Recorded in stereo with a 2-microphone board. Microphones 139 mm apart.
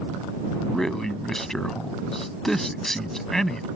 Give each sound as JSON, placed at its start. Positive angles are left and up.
{"t": 0.6, "sound": "a man speaking", "side_deg": 5}